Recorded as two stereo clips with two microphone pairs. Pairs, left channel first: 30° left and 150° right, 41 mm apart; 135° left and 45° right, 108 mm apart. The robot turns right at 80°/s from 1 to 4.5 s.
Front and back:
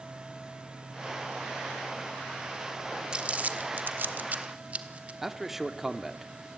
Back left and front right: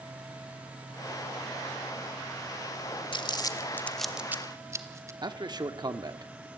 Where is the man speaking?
70° right, 1.2 m.